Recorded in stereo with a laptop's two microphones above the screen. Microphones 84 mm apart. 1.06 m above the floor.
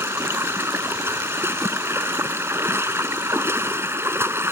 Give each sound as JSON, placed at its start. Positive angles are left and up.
{"t": 0.0, "sound": "running water", "side_deg": -30}